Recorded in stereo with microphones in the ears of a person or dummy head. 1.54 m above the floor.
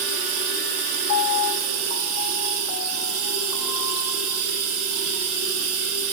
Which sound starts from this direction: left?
A piano, at 1.1 s.